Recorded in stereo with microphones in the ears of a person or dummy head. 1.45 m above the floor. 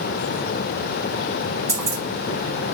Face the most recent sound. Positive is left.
turn(degrees=-35)  # may be behind; listen again after turning